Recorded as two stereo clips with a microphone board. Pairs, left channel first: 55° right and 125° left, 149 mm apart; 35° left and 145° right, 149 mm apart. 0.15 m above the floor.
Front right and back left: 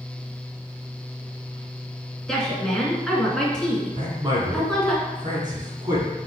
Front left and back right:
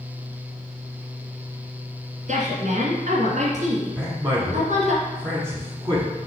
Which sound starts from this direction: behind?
A man speaking, at 4.0 s.